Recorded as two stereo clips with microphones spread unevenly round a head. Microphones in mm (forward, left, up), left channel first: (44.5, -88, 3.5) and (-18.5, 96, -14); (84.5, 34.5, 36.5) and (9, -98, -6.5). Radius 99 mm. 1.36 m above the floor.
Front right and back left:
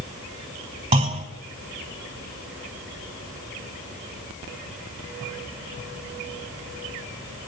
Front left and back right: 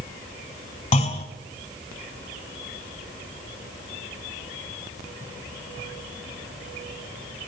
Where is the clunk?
50° left, 1.8 m.